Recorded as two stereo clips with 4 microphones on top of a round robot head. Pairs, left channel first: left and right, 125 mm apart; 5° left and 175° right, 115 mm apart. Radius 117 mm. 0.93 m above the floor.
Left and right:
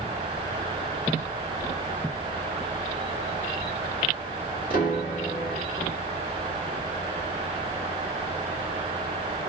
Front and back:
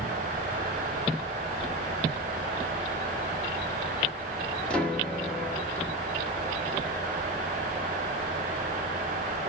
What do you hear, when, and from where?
4.7 s a piano: 90° left, 1.0 m